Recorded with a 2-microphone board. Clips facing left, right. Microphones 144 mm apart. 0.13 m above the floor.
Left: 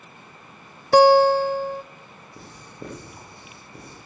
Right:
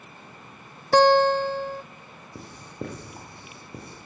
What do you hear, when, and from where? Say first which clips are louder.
0.9 s a guitar: left 4 dB; 10° left (ahead or behind), 0.6 m
2.4 s writing: right 4 dB; 60° right (ahead or behind), 5 m